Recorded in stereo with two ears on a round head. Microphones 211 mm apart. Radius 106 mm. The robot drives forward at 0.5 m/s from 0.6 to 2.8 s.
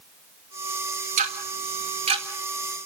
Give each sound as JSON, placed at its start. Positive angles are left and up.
{"t": 1.2, "sound": "ticking", "side_deg": -35, "distance_m": 1.9}